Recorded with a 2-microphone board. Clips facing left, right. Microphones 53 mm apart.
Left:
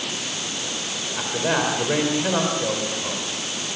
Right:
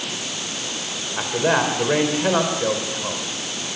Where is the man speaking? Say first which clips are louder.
Right 3 dB; 20° right (ahead or behind), 3.5 m.